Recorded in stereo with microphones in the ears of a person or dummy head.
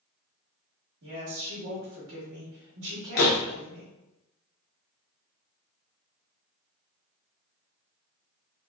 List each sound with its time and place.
1.0 s a woman speaking: 65° right (ahead or behind), 1.3 m
3.2 s a door slam: 60° left (ahead or behind), 0.7 m